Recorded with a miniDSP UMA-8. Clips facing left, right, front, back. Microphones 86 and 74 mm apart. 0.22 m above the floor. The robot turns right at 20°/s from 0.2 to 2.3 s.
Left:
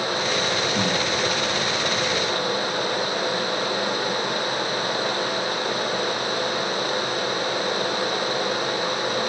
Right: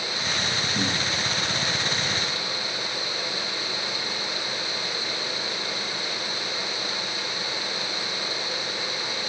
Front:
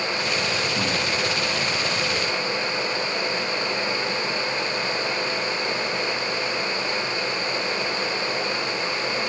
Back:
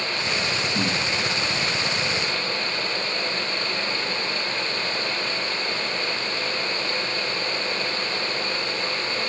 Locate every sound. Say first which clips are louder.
0.7 s breathing: left 5 dB, even; 150° left, 6 m; by 1.0 s 155° left, 6 m